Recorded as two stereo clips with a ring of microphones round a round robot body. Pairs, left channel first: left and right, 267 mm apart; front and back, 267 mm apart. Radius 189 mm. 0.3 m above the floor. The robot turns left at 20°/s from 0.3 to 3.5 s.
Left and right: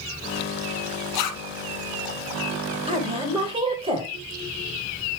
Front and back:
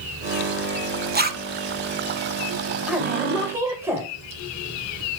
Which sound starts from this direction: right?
A woman speaking, at 2.9 s.